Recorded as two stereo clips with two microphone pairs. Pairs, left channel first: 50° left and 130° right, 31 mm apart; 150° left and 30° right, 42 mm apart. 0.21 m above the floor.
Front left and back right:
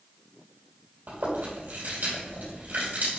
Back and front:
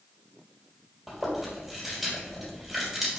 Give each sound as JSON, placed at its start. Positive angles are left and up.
{"t": 1.1, "sound": "chewing", "azimuth_deg": -115, "distance_m": 4.0}